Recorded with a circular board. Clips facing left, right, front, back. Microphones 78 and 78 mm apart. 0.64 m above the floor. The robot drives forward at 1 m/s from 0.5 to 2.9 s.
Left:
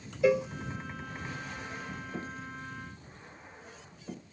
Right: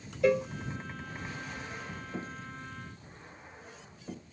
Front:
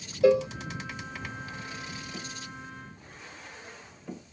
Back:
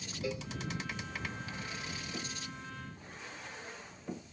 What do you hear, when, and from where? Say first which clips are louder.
0.2 s a cowbell: left 1 dB, front 18 dB; 5° left